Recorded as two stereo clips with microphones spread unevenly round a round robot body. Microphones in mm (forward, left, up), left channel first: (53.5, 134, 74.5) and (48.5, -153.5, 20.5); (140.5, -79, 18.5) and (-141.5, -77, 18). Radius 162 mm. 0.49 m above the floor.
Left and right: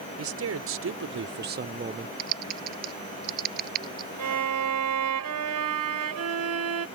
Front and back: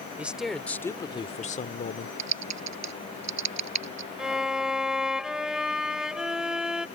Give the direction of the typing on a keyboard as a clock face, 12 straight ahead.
5 o'clock.